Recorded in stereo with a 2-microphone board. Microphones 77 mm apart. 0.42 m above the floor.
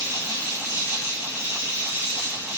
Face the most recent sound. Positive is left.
turn(degrees=-30)  # may be behind; listen again after turning